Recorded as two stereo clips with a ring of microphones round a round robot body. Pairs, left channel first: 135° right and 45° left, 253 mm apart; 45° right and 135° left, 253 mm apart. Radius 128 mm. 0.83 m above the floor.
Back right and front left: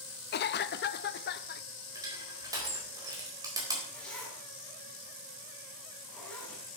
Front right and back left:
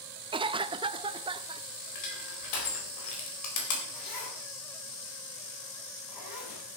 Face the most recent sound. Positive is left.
turn(degrees=-50)